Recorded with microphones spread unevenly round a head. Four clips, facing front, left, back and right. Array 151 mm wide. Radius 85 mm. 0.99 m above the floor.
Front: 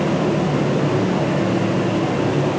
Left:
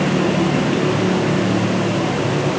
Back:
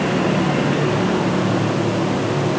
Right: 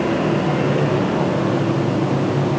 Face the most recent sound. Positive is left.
No sound to turn to.